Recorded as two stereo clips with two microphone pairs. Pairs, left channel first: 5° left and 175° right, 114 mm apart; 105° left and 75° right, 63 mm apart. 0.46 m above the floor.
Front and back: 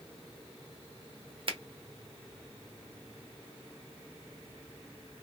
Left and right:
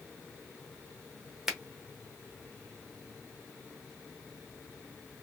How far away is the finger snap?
About 0.8 m.